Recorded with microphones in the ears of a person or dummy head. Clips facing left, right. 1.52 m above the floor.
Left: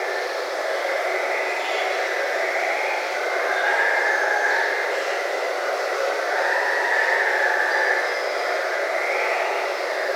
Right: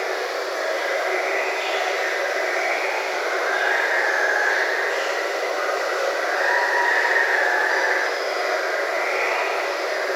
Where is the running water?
15° right (ahead or behind), 1.5 m.